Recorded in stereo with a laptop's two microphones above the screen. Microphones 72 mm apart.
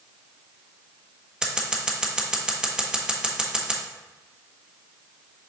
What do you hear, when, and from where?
1.4 s scissors: 10° right (ahead or behind), 1.0 m